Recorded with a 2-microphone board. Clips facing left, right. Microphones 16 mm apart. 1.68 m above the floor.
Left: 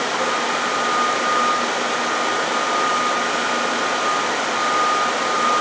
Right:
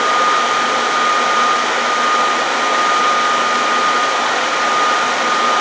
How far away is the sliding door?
I don't hear a sliding door.